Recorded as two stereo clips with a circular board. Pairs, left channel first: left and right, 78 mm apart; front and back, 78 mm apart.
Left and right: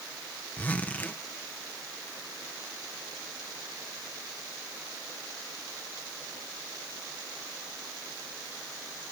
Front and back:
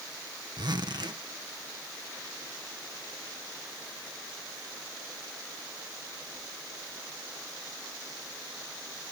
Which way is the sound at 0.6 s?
160° left.